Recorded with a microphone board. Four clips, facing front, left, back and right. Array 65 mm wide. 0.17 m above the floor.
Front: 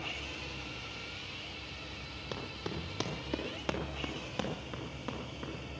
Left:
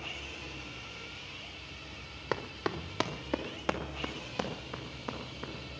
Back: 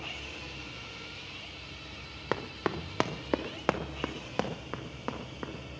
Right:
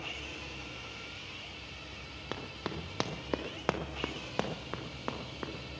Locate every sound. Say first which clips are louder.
2.3 s running footsteps: left 6 dB, back 9 dB; 160° left, 1.4 m; by 5.5 s 130° right, 3 m